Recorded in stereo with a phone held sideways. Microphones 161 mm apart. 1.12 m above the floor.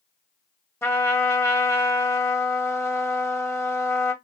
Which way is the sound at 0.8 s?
15° left (ahead or behind).